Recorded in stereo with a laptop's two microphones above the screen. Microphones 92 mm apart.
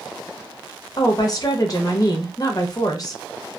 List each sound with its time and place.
1.0 s a woman speaking: 40° left (ahead or behind), 0.6 m